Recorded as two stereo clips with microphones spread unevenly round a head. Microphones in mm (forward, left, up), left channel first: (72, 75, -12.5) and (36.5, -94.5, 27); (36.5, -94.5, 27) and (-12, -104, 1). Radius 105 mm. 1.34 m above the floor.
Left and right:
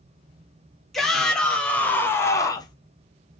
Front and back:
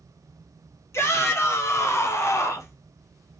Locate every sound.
0.9 s a shout: 10° right, 2.5 m; by 2.8 s 10° left, 1.1 m